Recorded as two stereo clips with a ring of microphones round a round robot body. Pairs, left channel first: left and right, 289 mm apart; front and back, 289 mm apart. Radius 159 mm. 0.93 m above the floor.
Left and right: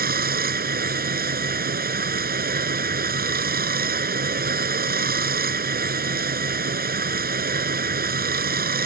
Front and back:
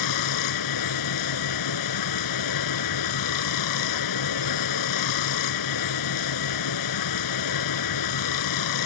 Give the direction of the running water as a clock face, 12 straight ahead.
1 o'clock.